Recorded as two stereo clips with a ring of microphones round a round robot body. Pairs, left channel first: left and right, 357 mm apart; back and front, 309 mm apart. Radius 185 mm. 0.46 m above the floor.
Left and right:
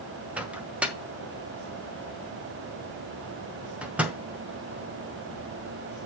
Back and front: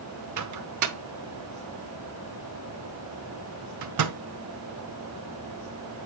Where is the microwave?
5° right, 1.0 m.